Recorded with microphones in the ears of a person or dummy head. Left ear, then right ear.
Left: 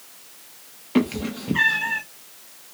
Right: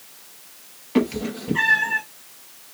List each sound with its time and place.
0.9 s a cat meowing: 5° left (ahead or behind), 0.7 m